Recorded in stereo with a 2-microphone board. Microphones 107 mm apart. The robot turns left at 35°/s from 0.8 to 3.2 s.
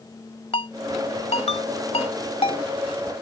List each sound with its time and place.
0.5 s a ringtone: 60° left (ahead or behind); by 2.6 s 55° left (ahead or behind)